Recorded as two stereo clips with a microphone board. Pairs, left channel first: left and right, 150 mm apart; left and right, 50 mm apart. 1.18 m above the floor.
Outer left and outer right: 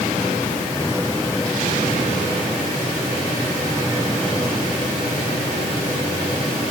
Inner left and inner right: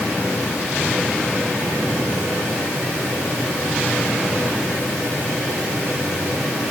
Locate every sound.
Only background noise.